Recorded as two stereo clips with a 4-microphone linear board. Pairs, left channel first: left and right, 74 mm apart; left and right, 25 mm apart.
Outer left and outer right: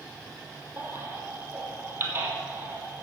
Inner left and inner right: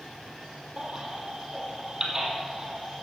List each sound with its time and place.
0.8 s a baby crying: 30° right (ahead or behind), 2 m